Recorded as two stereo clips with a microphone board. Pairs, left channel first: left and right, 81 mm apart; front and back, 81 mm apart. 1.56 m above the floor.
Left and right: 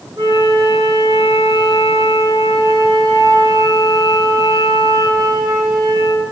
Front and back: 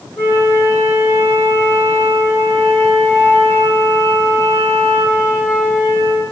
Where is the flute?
60° right, 5.5 m.